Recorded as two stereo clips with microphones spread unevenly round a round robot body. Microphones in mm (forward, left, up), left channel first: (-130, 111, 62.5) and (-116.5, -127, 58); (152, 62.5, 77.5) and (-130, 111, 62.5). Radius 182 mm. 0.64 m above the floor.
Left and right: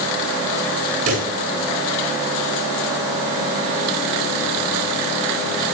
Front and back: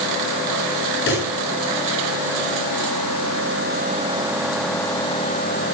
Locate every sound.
1.1 s a pop: 65° right, 9.5 m